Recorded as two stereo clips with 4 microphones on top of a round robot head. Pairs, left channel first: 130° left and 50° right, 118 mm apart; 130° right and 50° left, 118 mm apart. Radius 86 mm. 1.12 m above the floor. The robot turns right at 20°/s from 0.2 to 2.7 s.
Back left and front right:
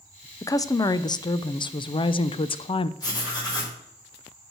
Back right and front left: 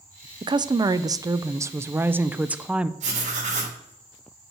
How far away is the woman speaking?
About 0.6 m.